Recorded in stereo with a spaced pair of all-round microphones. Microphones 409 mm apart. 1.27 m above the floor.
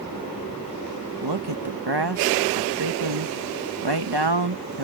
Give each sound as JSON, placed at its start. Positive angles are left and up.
{"t": 1.2, "sound": "a man speaking", "side_deg": -85}